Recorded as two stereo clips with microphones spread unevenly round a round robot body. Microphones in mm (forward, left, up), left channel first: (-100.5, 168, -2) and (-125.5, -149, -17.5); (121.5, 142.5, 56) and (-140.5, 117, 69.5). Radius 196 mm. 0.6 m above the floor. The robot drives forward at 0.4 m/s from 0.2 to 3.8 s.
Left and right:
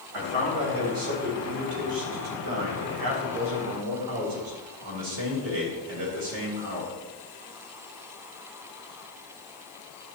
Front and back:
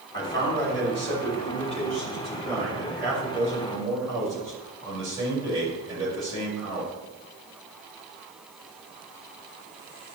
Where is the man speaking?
70° right, 3.5 m; by 6.9 s 95° right, 3.5 m.